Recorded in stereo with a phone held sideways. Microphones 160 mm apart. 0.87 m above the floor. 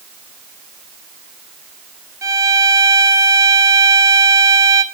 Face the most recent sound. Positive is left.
turn(degrees=-20)  # may be behind; listen again after turning